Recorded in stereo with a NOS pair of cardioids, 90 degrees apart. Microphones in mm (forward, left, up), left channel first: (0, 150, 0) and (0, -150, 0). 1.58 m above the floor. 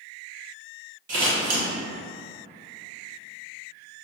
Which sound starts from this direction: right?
Scissors, at 1.1 s.